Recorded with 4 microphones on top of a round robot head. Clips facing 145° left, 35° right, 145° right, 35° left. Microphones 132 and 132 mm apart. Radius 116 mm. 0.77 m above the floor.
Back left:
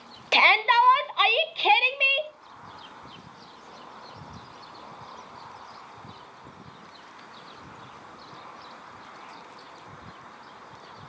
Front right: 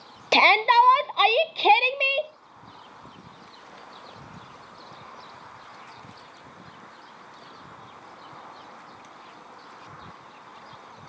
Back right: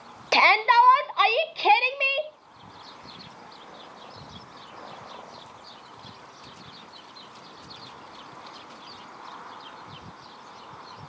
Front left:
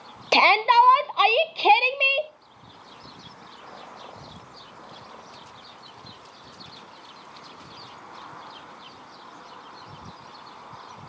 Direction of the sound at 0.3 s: 20° right.